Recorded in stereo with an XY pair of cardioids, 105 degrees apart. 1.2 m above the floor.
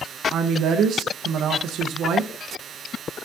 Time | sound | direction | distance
0.3 | a woman speaking | 65° right | 0.9 m